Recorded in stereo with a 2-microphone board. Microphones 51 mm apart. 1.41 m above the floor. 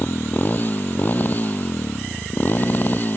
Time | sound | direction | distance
0.0 | a motorcycle | 35° left (ahead or behind) | ?